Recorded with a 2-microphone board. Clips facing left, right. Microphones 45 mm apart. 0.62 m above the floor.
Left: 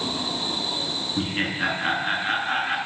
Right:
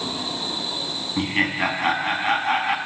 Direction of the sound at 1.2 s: 80° right.